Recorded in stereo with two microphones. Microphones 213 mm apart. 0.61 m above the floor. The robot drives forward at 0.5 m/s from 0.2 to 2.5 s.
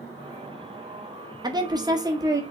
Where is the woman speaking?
20° right (ahead or behind), 0.7 m; by 2.4 s 15° right (ahead or behind), 0.8 m.